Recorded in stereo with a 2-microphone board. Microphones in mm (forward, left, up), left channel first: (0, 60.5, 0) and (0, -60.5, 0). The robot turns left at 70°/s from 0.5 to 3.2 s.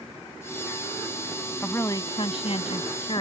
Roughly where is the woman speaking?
Behind.